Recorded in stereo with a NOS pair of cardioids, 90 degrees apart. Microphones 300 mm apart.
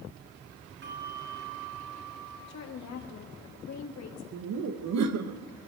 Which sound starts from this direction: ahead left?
A woman speaking, at 2.5 s.